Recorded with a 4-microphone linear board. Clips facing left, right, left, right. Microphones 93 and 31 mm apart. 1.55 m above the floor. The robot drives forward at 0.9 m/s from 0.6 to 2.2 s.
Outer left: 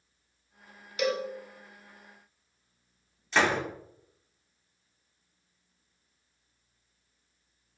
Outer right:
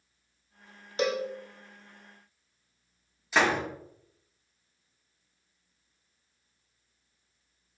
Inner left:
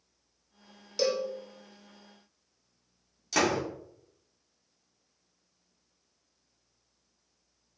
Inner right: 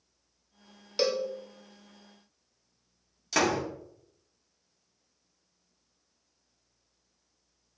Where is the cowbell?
35° right (ahead or behind), 1.2 m; by 1.3 s 30° right (ahead or behind), 1.4 m.